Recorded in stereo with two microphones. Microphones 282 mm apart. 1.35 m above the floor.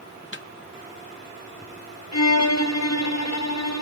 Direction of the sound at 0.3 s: 45° left (ahead or behind).